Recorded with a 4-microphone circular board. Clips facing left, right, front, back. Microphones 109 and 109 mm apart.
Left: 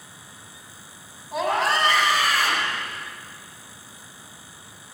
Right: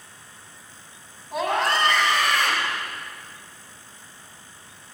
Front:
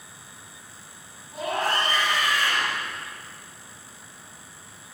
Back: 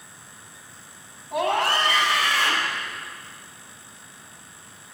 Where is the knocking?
No knocking in this recording.